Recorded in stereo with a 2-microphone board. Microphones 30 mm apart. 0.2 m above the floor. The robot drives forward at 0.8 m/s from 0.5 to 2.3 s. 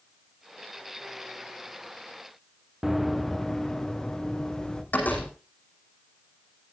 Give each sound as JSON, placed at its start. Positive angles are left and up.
{"t": 2.8, "sound": "running footsteps", "side_deg": -5, "distance_m": 1.0}
{"t": 4.9, "sound": "a door slam", "side_deg": 70, "distance_m": 9.0}